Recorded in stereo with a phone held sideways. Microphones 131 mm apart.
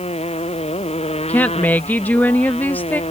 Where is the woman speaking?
15° left (ahead or behind).